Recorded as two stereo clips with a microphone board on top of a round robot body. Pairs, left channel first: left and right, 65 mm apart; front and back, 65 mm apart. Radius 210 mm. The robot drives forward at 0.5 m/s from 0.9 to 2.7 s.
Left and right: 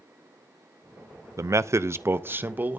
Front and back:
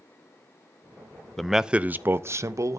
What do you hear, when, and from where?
1.4 s a man speaking: 85° right, 0.6 m; by 2.8 s 150° right, 0.9 m